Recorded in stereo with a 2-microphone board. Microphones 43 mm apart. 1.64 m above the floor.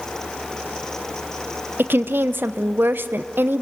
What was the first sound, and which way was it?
A woman speaking, 50° right (ahead or behind).